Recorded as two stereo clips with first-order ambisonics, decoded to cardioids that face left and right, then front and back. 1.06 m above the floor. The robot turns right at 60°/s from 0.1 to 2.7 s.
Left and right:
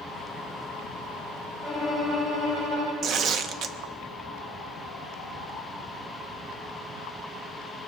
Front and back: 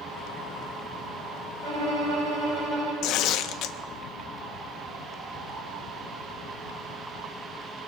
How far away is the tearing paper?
About 0.5 m.